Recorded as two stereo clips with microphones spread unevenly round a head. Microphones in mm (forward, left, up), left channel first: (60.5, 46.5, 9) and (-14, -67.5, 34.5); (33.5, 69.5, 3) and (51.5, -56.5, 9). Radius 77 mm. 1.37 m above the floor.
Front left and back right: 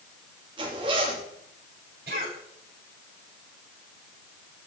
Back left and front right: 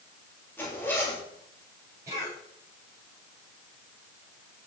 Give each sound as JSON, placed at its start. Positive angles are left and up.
{"t": 0.6, "sound": "a zipper", "azimuth_deg": 175, "distance_m": 3.0}
{"t": 2.1, "sound": "a cough", "azimuth_deg": -155, "distance_m": 9.5}